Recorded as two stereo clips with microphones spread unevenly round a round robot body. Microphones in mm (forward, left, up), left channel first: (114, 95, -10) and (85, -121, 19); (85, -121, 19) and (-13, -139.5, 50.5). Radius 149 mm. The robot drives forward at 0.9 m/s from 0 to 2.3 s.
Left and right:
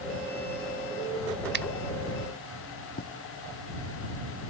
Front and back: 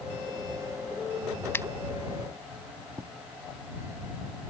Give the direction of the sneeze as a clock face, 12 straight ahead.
No sneeze in this recording.